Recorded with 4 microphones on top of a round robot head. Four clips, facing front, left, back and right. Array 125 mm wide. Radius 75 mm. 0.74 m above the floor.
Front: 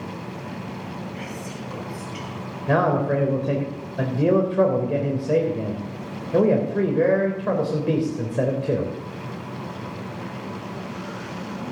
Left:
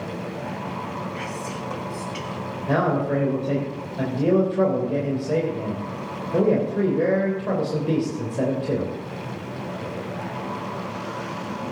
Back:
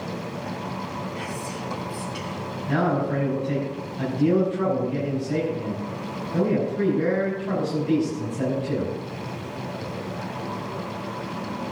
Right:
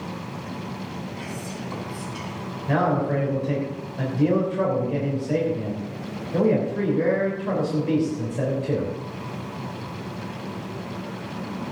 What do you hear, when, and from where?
1.1 s whispering: 100° left, 4 m
2.7 s a man speaking: 15° left, 3.5 m